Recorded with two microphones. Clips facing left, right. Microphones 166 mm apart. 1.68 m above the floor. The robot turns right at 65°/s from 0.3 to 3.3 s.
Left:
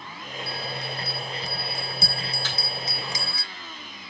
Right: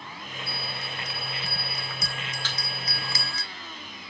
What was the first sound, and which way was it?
A bell, 30° right.